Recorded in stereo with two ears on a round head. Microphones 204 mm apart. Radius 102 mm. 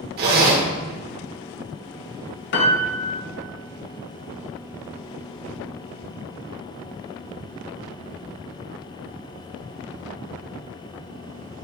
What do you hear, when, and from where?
0.2 s a zipper: 45° right (ahead or behind), 1.1 m
2.5 s a piano: 55° left (ahead or behind), 0.9 m